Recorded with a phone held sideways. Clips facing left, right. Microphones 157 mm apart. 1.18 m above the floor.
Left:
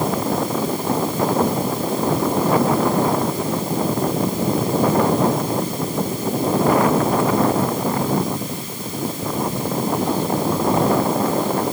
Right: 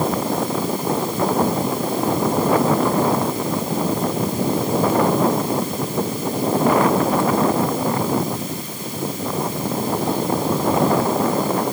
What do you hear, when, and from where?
Only background noise.